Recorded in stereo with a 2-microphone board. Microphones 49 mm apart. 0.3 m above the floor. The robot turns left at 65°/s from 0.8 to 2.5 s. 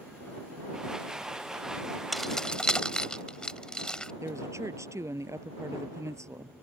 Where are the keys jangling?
Centre (ahead or behind); by 4.1 s 15° left (ahead or behind).